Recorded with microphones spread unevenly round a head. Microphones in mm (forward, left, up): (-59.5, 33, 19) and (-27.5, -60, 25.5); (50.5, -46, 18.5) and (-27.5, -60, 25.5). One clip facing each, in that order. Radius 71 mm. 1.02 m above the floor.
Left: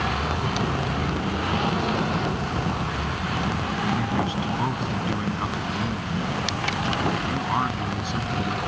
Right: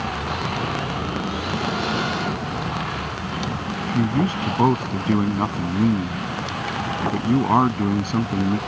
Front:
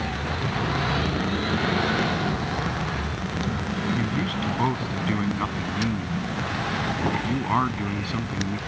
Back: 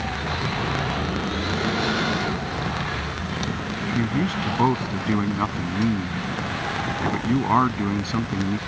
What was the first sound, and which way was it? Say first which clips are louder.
A man speaking: right 4 dB, back 3 dB; 105° right.